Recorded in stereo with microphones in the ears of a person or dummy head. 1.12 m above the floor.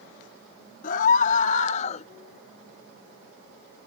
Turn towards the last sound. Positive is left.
turn(degrees=35)  # may be behind; listen again after turning